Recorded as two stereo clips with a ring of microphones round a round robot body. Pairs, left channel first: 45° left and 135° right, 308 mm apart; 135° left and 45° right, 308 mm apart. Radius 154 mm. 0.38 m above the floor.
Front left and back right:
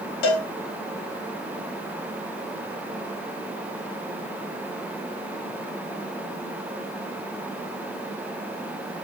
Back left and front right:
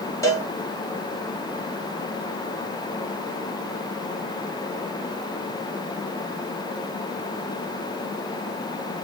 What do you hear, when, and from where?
0.2 s a cowbell: 55° left, 0.9 m